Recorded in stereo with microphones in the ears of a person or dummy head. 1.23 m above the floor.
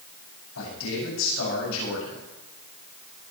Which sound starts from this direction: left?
A man speaking, at 0.6 s.